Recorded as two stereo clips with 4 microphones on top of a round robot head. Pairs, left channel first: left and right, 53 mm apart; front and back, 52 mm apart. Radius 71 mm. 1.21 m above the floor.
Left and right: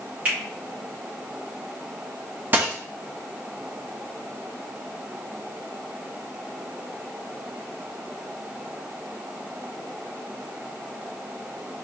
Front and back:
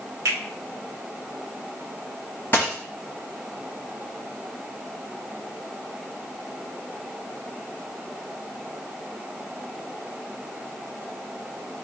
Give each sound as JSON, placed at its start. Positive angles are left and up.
{"t": 0.2, "sound": "a finger snap", "azimuth_deg": -155, "distance_m": 2.0}
{"t": 2.5, "sound": "a dropped coin", "azimuth_deg": -60, "distance_m": 0.5}